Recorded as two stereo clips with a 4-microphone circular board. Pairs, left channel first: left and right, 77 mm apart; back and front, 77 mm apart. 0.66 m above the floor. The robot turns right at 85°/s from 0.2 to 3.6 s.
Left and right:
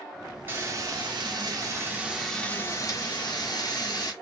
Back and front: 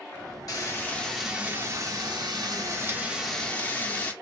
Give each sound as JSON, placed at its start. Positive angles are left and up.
{"t": 0.5, "sound": "frying", "azimuth_deg": -150, "distance_m": 1.4}